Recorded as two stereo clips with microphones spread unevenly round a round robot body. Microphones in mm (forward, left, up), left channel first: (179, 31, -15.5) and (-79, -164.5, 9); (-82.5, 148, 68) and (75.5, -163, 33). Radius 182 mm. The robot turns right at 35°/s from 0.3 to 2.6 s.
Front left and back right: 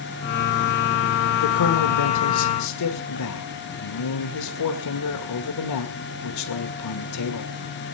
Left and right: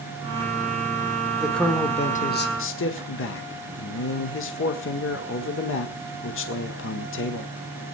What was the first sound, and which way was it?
A man speaking, 20° left.